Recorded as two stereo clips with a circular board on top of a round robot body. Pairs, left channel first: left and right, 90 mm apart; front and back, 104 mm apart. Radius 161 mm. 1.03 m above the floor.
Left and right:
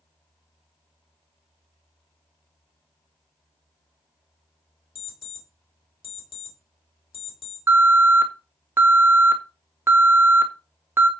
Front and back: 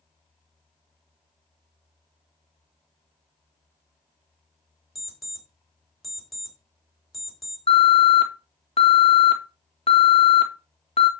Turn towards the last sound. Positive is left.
turn(degrees=-25)